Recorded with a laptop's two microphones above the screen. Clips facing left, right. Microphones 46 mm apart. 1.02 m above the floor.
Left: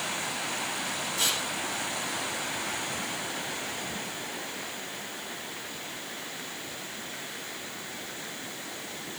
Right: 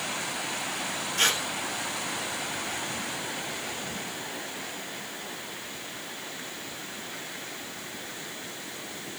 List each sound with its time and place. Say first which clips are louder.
1.2 s tearing paper: right 6 dB; 65° right (ahead or behind), 4 m